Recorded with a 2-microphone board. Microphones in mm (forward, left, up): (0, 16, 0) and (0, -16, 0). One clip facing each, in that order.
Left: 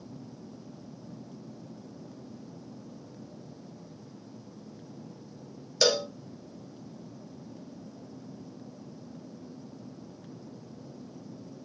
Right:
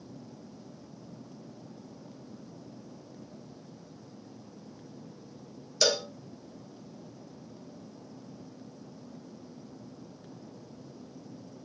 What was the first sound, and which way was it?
A cowbell, 15° left (ahead or behind).